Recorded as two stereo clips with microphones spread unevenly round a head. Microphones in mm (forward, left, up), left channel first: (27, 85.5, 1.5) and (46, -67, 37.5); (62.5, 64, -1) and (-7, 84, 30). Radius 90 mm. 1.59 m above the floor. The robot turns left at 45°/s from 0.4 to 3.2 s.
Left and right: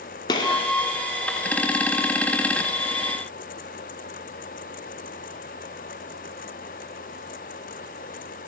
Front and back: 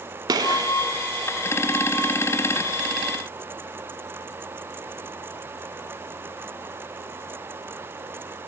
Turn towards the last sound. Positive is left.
turn(degrees=45)